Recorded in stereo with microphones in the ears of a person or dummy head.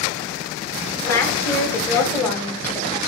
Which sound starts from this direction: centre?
A woman speaking, at 1.0 s.